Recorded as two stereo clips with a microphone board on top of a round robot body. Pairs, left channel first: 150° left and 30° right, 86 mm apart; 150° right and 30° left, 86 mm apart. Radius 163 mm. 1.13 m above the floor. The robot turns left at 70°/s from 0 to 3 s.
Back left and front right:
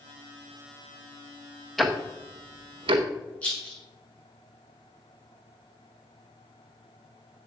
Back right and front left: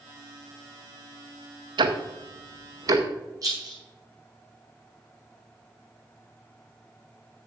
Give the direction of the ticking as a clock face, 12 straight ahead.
10 o'clock.